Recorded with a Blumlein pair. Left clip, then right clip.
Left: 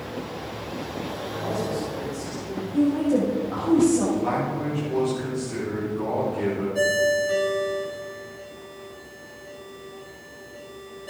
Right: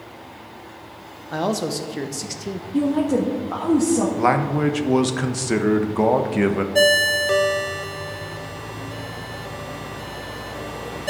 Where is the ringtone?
35° right, 1.0 m.